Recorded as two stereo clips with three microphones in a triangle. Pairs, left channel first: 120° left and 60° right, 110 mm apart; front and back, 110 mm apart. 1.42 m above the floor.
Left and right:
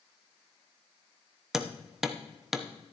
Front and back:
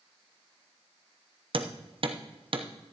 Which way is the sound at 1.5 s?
145° right.